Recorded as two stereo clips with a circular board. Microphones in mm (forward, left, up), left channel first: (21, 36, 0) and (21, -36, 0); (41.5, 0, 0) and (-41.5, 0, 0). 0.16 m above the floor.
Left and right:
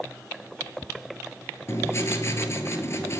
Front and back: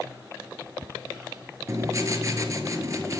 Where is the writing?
135° left, 0.7 m.